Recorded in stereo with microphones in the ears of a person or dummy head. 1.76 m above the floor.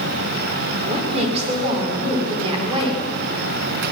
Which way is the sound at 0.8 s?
40° right (ahead or behind).